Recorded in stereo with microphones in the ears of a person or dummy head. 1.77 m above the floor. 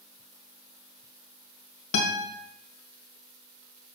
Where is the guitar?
75° left (ahead or behind), 1.4 m.